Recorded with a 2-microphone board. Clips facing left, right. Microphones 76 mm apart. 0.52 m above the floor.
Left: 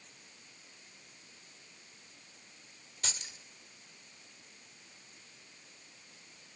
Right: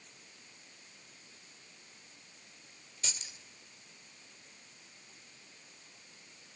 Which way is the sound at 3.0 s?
55° left (ahead or behind).